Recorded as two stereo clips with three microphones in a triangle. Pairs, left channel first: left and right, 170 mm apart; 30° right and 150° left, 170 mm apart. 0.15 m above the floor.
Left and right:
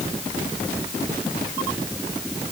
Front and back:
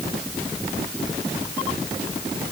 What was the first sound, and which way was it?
Only background noise.